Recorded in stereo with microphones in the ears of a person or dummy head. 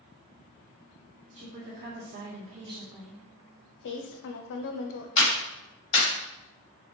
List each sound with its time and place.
1.3 s a woman speaking: 60° right (ahead or behind), 1.5 m; by 3.2 s 10° left (ahead or behind), 0.5 m
3.8 s a woman speaking: 60° left (ahead or behind), 0.6 m
5.2 s a clap: 35° left (ahead or behind), 1.4 m